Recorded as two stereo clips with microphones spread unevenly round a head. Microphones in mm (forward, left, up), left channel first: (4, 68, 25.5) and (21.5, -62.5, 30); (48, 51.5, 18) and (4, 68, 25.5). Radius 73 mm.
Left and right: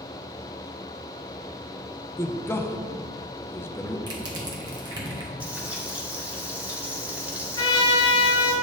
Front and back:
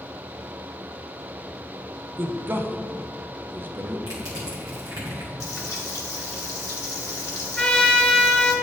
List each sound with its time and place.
2.2 s a man speaking: 150° left, 0.6 m
4.1 s crushing: 145° right, 1.1 m
5.4 s frying: 5° right, 1.2 m
7.6 s a trumpet: 40° left, 1.1 m